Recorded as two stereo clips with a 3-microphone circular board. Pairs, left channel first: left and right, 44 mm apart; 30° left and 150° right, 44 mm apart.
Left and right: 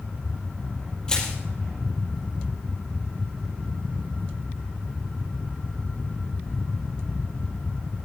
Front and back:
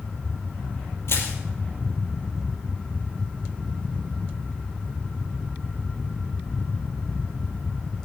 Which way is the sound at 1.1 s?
20° left.